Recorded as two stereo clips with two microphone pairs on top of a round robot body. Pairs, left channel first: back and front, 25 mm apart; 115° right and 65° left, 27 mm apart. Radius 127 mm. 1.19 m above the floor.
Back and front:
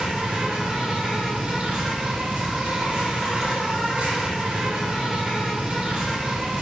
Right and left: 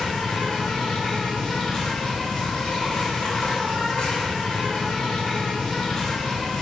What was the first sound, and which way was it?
An insect, 40° right.